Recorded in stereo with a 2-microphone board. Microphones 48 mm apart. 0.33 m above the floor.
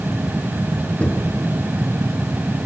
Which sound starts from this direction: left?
Knocking, at 1.0 s.